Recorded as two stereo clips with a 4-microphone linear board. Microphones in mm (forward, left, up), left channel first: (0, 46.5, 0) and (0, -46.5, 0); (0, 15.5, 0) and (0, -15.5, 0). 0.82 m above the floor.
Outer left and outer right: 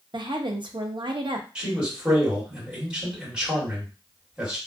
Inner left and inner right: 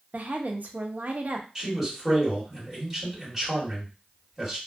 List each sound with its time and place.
0.1 s a woman speaking: 55° right (ahead or behind), 0.5 m
1.6 s a man speaking: 10° right (ahead or behind), 1.7 m